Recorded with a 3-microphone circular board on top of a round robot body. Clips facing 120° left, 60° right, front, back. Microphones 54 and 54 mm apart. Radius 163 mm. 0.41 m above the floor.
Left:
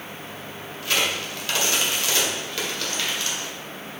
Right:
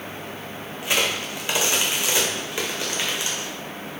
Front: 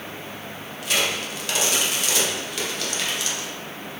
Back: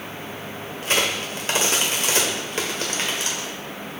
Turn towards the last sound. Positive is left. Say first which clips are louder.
# right 1 dB, back 1 dB
turn(degrees=-130)